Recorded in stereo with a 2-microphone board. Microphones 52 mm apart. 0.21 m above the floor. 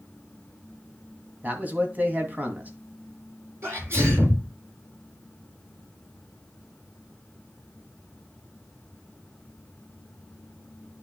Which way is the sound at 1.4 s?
35° right (ahead or behind).